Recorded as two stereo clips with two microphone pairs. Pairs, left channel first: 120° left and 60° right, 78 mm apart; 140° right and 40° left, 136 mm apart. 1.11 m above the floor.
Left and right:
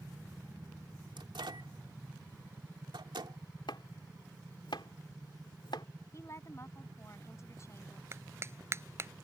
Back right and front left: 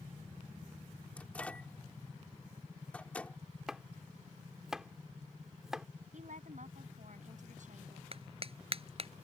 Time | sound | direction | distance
1.2 | a microwave | 55° right | ?
3.7 | chopping | 130° left | ?
6.1 | a woman speaking | 70° left | ?
8.1 | a clap | 5° right | ?